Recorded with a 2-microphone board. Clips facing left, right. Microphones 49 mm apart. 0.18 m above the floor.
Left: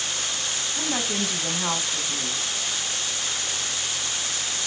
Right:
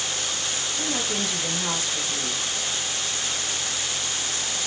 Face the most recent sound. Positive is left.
turn(degrees=25)  # may be behind; listen again after turning